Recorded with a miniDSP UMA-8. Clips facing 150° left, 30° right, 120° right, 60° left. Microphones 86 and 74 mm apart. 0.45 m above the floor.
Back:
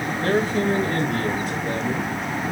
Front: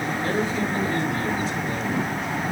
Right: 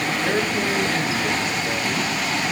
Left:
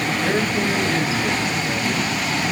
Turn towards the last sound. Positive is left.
turn(degrees=150)